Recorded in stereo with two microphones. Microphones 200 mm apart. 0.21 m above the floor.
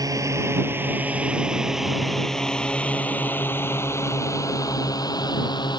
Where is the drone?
15° right (ahead or behind); by 5.8 s 20° left (ahead or behind).